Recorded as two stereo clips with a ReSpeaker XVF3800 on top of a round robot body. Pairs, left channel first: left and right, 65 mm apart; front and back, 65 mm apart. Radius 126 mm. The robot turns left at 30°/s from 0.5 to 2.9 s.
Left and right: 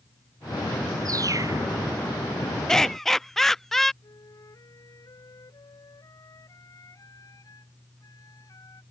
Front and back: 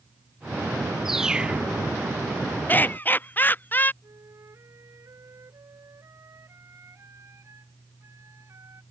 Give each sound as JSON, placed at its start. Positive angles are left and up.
{"t": 1.1, "sound": "a bird", "azimuth_deg": -95}
{"t": 2.7, "sound": "laughter", "azimuth_deg": 15}
{"t": 4.0, "sound": "a flute", "azimuth_deg": 130}